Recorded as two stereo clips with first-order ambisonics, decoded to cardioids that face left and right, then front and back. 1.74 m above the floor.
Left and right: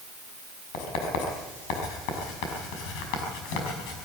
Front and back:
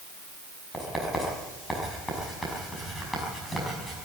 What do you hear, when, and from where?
0.7 s writing: 85° left, 5.5 m